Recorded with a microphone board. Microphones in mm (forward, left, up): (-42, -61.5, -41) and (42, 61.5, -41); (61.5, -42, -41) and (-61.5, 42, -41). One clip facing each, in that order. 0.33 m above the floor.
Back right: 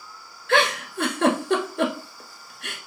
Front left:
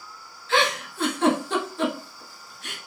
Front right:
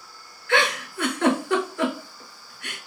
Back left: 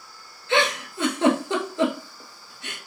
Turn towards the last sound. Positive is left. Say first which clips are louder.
# back right 2 dB, back left 1 dB
turn(degrees=-145)